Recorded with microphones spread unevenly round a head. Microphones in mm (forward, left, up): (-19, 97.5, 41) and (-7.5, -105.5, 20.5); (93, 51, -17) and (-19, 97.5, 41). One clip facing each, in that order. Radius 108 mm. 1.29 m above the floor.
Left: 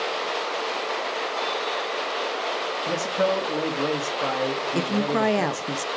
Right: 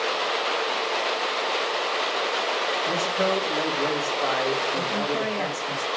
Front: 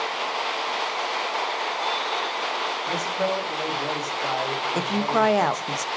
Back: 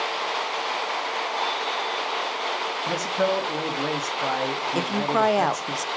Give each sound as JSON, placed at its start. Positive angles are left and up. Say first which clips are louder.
{"t": 2.9, "sound": "a man speaking", "louder": "left 3 dB, back 3 dB", "azimuth_deg": 145, "distance_m": 2.5}
{"t": 4.8, "sound": "a woman speaking", "louder": "left 4 dB, even", "azimuth_deg": 60, "distance_m": 0.6}